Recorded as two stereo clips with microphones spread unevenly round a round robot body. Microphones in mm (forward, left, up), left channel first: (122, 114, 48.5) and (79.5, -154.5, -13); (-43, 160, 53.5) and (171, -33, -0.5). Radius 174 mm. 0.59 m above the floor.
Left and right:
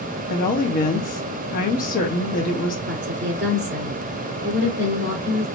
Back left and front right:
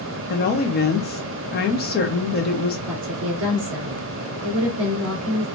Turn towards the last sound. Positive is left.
turn(degrees=-70)